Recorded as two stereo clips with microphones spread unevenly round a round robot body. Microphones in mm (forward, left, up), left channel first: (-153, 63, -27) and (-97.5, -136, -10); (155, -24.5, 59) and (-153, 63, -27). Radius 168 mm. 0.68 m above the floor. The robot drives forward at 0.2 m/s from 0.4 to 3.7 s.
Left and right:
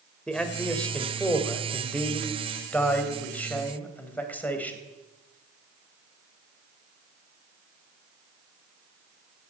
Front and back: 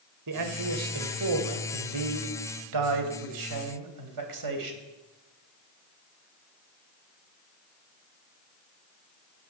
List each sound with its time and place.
0.3 s a man speaking: 170° right, 2 m